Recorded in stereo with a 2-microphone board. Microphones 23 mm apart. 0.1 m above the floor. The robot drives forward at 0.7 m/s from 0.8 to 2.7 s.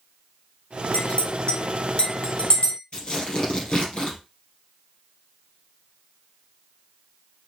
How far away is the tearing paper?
About 2.5 m.